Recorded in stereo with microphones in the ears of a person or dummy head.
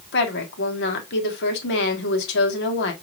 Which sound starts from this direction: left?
A woman speaking, at 0.1 s.